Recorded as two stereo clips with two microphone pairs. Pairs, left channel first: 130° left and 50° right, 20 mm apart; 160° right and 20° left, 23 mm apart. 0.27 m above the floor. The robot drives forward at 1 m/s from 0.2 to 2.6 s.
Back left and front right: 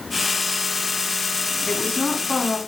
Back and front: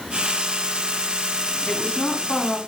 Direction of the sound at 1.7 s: 160° left.